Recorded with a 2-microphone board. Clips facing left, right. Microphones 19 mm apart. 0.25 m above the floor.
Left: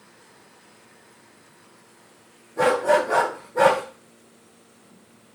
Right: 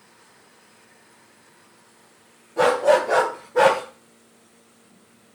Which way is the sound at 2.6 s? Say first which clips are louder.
Right 2 dB; 60° right (ahead or behind).